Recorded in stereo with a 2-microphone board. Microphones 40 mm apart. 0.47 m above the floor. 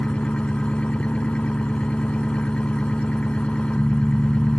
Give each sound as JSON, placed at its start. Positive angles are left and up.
{"t": 0.0, "sound": "an engine running", "side_deg": 25}